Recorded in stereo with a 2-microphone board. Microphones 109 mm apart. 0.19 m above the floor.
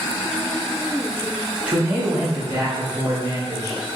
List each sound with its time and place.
1.7 s a man speaking: 15° right (ahead or behind), 1.2 m; by 3.8 s 30° right (ahead or behind), 2.5 m